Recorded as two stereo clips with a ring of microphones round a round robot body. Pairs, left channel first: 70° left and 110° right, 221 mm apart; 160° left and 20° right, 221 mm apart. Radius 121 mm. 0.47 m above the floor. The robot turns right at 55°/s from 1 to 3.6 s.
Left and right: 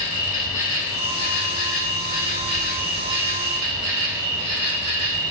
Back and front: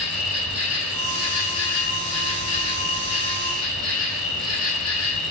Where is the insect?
100° left, 1.1 m; by 5.3 s 115° right, 1.1 m.